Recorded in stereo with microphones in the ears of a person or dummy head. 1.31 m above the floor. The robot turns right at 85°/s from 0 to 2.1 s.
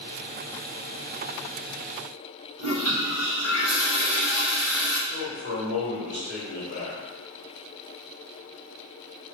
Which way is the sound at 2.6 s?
60° left (ahead or behind).